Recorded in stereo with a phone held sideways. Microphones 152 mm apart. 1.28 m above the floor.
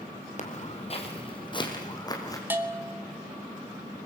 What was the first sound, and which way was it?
Footsteps, 50° left (ahead or behind).